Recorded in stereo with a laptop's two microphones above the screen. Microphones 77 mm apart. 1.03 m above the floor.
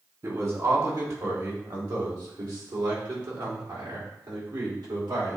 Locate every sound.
0.2 s a man speaking: 50° right (ahead or behind), 3 m; by 5.4 s 80° right, 4.5 m